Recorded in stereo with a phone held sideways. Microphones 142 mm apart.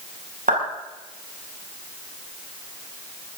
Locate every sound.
0.5 s a clap: 85° right, 7.5 m